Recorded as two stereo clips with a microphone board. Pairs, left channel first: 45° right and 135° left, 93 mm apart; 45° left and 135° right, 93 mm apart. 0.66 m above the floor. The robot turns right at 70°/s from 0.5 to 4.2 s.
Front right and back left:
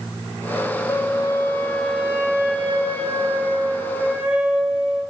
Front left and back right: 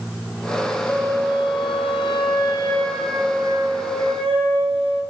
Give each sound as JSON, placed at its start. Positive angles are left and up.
{"t": 0.9, "sound": "a flute", "azimuth_deg": -20, "distance_m": 1.1}